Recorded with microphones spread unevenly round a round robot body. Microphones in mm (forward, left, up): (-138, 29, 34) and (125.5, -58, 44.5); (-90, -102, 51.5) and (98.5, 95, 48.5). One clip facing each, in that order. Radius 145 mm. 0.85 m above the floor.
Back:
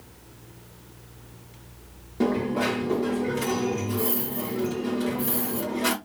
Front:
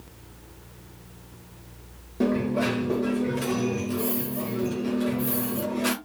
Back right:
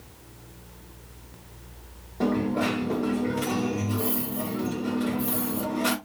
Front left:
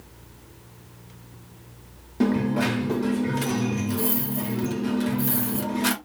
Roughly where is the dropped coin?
Left.